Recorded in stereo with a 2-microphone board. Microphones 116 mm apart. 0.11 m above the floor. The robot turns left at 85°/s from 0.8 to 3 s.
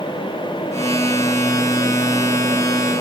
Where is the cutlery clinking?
No cutlery clinking in this recording.